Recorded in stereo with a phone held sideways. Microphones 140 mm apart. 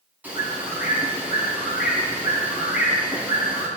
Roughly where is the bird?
Centre.